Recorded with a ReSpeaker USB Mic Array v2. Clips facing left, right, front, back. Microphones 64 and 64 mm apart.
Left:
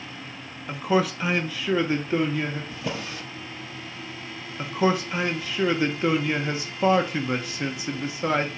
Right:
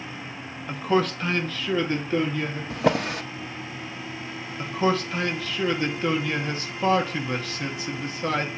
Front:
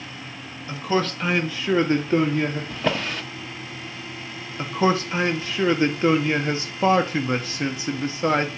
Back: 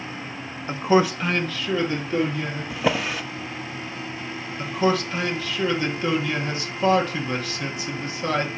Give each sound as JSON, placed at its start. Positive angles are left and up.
{"t": 0.7, "sound": "a man speaking", "azimuth_deg": 180, "distance_m": 0.9}
{"t": 2.7, "sound": "a drawer", "azimuth_deg": -100, "distance_m": 0.7}
{"t": 4.6, "sound": "a man speaking", "azimuth_deg": 35, "distance_m": 1.0}